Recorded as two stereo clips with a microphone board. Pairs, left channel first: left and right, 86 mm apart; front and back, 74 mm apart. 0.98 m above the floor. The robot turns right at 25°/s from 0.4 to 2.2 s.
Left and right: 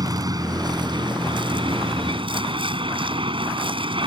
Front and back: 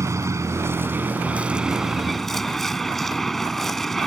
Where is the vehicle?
130° right; by 4.1 s 85° right.